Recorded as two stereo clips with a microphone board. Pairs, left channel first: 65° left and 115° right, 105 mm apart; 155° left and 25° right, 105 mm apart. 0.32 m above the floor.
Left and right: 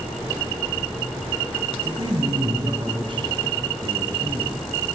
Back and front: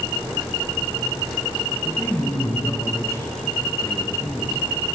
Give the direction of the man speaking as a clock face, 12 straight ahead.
5 o'clock.